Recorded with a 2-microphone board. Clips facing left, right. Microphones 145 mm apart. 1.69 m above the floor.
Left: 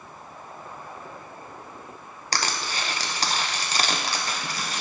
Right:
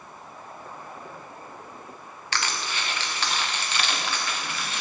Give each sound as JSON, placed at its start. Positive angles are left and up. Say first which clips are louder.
{"t": 2.3, "sound": "crushing", "louder": "left 2 dB", "side_deg": 35, "distance_m": 1.1}